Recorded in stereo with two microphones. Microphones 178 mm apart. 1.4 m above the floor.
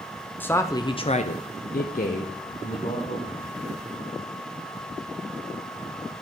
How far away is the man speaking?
About 0.7 m.